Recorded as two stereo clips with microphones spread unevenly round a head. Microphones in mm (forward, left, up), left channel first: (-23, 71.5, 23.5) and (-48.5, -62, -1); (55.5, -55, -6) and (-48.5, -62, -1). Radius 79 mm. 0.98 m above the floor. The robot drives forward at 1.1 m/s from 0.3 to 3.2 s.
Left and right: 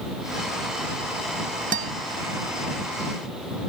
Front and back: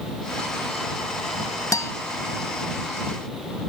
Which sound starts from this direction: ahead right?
A guitar, at 1.7 s.